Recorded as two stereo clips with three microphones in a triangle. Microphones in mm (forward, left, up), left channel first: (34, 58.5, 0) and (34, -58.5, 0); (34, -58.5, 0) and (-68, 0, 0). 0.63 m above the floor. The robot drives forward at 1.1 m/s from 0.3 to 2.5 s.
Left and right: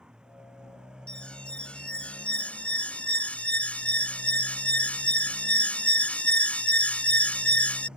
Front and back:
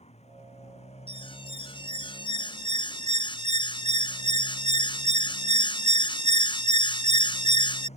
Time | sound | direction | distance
0.0 | a motorcycle | 5° right | ?
1.1 | an alarm | 10° left | ?